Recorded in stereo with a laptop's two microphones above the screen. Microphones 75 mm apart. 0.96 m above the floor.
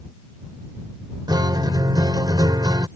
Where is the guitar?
65° right (ahead or behind).